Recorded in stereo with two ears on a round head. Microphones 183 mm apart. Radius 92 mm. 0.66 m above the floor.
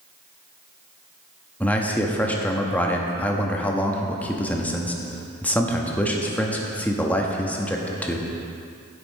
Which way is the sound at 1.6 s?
10° left (ahead or behind).